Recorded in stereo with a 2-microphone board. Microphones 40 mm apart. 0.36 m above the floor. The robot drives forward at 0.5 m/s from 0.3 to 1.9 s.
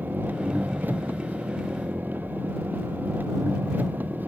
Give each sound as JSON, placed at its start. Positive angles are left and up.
{"t": 0.0, "sound": "an engine running", "side_deg": -50}